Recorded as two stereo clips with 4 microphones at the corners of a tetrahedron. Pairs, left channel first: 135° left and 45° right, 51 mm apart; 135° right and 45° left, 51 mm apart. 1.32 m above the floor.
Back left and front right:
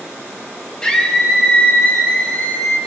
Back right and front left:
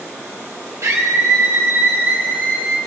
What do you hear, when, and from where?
0.8 s a scream: 60° left, 2 m; by 2.8 s 105° left, 3 m